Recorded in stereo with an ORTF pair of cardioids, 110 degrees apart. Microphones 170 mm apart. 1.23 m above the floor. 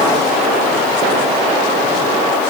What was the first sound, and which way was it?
Only background noise.